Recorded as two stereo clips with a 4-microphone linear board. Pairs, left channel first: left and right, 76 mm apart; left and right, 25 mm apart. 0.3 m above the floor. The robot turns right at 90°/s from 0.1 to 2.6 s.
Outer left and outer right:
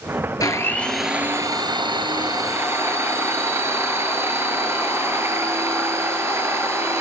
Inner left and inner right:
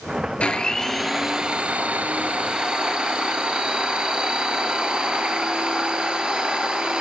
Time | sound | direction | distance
0.4 | a blender | 130° left | 4 m